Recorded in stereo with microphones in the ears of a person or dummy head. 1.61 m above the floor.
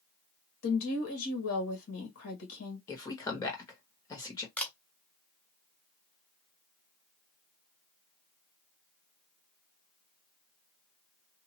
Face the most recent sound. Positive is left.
turn(degrees=10)  # may be behind; listen again after turning